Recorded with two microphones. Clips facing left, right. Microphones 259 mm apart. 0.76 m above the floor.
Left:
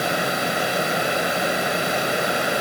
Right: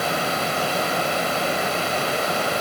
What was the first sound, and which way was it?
Only background noise.